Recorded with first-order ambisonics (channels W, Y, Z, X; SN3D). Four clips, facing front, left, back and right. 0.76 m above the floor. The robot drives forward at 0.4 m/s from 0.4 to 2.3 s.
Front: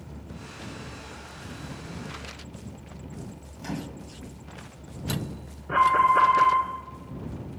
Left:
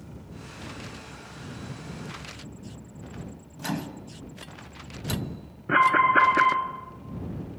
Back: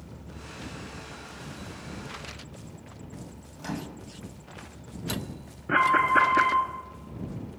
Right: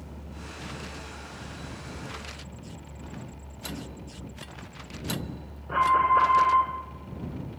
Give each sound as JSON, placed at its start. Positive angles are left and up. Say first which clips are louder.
{"t": 3.6, "sound": "a microwave", "louder": "left 6 dB, front 1 dB", "azimuth_deg": 110, "distance_m": 0.6}
{"t": 5.7, "sound": "an alarm", "louder": "left 2 dB, front 1 dB", "azimuth_deg": 130, "distance_m": 1.2}